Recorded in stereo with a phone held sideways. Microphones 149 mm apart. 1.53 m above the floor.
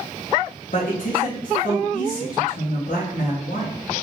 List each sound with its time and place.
0.7 s a man speaking: 70° left (ahead or behind), 1.0 m